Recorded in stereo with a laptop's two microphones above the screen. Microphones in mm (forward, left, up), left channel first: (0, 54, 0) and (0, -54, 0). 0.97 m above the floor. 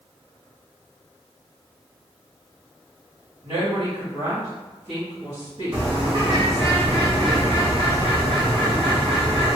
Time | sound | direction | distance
3.4 | a woman speaking | 60° right (ahead or behind) | 1.5 m
5.7 | a bird | 60° right (ahead or behind) | 1.1 m